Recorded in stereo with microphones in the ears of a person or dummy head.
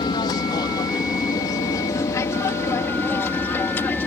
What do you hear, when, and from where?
0.0 s an aircraft: 30° left (ahead or behind); by 4.1 s 15° left (ahead or behind)